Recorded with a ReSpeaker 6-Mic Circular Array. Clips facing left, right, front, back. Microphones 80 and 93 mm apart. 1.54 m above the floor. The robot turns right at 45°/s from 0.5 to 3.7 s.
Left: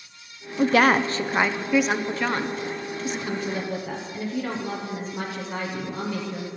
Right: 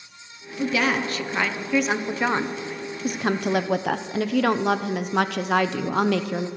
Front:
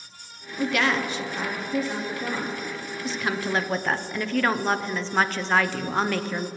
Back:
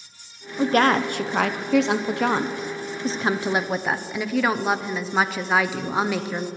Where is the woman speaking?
120° left, 0.6 m; by 6.5 s 100° right, 0.6 m.